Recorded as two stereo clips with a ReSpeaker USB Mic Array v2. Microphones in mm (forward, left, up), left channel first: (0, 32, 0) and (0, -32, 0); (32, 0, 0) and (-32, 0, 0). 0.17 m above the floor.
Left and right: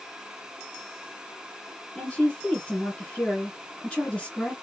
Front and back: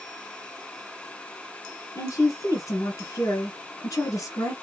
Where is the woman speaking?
15° left, 2.5 m.